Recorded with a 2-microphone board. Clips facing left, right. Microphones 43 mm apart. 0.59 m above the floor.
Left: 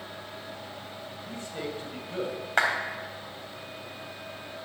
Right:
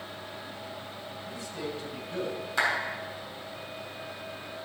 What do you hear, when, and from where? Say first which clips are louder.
1.2 s a man speaking: left 1 dB; 40° left (ahead or behind), 3 m; by 2.4 s 20° left (ahead or behind), 2.5 m
2.6 s a clap: left 2 dB; 50° left (ahead or behind), 3.5 m